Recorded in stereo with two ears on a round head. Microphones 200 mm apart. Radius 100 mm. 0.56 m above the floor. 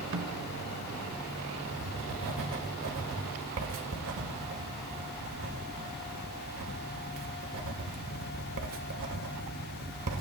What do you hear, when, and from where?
0.1 s a snare drum: 60° right (ahead or behind), 0.8 m
1.7 s writing: 65° right (ahead or behind), 1.4 m